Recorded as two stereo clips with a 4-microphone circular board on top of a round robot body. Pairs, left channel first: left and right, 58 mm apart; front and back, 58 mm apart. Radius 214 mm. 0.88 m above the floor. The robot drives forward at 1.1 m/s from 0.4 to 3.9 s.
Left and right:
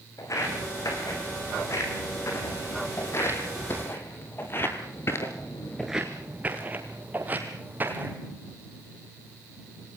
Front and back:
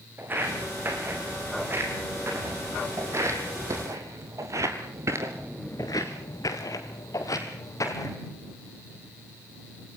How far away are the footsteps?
About 5.5 m.